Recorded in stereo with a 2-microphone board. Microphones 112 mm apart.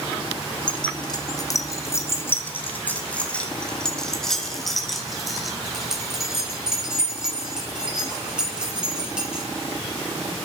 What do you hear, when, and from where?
0.7 s keys jangling: 45° left (ahead or behind), 1.3 m; by 9.4 s 10° right (ahead or behind), 5.5 m